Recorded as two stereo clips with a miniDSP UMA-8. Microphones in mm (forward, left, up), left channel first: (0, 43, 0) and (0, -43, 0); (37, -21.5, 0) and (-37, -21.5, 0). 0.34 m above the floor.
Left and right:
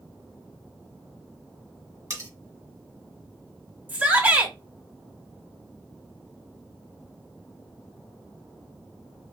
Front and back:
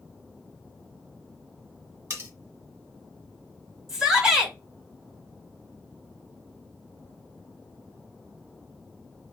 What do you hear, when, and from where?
2.1 s cutlery clinking: 135° right, 1.4 m
3.9 s a shout: 110° right, 1.1 m